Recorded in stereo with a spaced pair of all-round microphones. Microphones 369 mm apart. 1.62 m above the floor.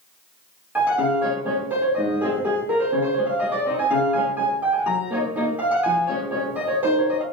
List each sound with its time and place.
0.8 s a piano: 5° right (ahead or behind), 1.2 m